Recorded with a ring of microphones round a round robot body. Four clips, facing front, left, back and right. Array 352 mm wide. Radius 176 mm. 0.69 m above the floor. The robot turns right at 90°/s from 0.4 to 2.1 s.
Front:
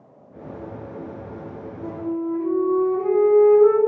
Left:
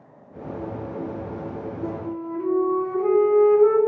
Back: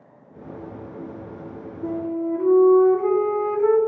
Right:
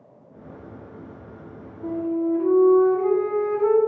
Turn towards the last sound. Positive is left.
turn(degrees=170)